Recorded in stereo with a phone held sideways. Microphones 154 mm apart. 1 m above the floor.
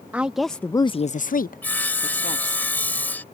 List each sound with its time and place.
0.1 s a woman speaking: 10° right (ahead or behind); by 2.6 s 55° left (ahead or behind)
1.6 s sawing: 10° left (ahead or behind)